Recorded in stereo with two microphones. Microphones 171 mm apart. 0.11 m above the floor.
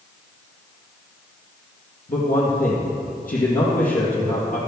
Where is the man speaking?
55° left (ahead or behind), 3 m.